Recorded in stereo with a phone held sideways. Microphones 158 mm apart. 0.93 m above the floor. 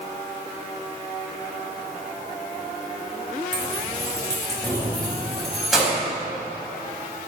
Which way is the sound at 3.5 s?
30° left (ahead or behind).